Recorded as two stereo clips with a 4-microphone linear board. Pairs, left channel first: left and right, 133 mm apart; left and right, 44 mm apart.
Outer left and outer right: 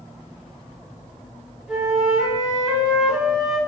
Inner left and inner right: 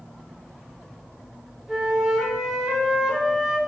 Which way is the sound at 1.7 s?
5° right (ahead or behind).